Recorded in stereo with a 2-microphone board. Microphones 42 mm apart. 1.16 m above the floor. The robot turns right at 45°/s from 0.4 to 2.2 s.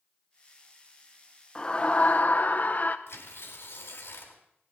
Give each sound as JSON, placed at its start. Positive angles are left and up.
{"t": 1.6, "sound": "a scream", "side_deg": 20, "distance_m": 0.7}
{"t": 3.1, "sound": "tearing paper", "side_deg": 75, "distance_m": 3.0}